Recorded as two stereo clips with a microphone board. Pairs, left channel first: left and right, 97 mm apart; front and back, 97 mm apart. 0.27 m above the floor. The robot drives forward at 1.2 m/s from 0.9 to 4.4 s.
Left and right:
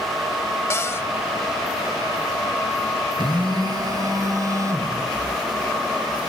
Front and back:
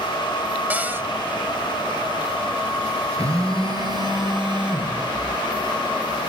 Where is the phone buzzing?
125° right, 3 m; by 6.3 s 145° right, 4 m.